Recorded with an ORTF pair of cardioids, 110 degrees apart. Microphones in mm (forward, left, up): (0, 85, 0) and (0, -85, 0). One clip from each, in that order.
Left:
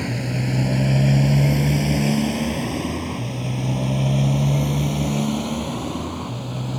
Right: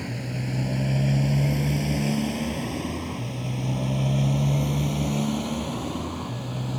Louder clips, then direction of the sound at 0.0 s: Left 7 dB; 40° left.